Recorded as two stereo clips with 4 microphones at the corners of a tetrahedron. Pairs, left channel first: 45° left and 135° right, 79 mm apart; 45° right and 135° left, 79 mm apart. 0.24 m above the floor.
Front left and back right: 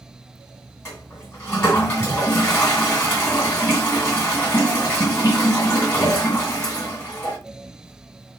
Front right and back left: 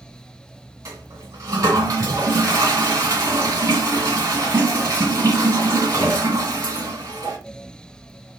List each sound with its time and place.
0.8 s a toilet flushing: 100° left, 2.0 m